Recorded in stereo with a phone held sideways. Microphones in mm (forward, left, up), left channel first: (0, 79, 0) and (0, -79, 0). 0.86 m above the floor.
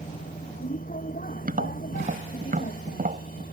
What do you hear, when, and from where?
0.0 s a vehicle: 60° left (ahead or behind); by 3.5 s 65° left (ahead or behind)
1.4 s tapping: 60° right (ahead or behind)